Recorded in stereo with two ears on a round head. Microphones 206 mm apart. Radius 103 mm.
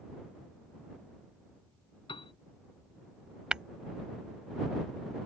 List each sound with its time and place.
2.1 s a piano: 25° left (ahead or behind)
3.5 s tapping: 5° right (ahead or behind)